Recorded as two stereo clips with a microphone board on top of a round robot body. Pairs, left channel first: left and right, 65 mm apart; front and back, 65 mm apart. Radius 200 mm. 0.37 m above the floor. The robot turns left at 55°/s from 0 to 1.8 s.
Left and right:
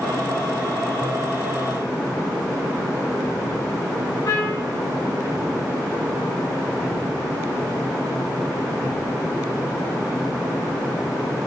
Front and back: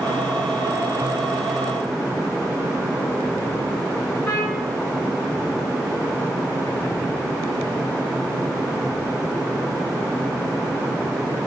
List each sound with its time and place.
4.2 s a trumpet: 80° left, 2.5 m